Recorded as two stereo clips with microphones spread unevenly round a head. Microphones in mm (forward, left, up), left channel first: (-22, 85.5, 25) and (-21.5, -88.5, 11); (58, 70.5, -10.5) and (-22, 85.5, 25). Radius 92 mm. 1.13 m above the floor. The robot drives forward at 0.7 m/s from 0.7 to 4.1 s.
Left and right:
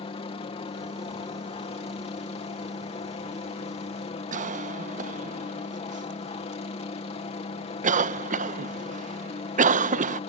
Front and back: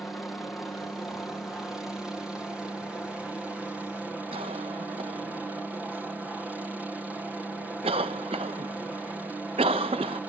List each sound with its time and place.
0.0 s a helicopter: 50° left; by 10.3 s 75° left
4.3 s a cough: 135° right